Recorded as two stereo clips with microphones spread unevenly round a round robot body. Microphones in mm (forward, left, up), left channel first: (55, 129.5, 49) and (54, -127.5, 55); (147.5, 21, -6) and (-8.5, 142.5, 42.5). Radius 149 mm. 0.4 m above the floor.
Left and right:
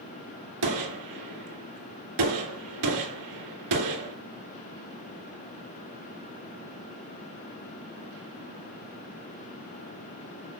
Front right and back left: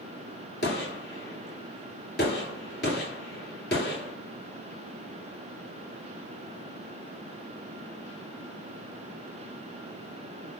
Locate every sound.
0.6 s a gunshot: 95° right, 2 m